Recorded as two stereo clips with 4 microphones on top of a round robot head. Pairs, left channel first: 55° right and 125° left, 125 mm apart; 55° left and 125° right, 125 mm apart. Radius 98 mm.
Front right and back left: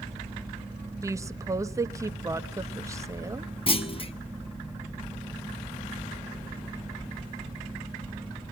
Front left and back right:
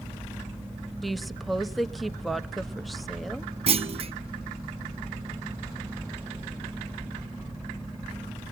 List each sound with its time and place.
1.0 s a woman speaking: 145° left, 1.0 m
3.7 s a clunk: 95° right, 1.6 m